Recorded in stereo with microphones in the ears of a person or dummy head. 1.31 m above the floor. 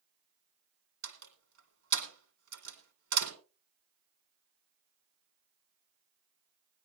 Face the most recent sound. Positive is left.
turn(degrees=-80)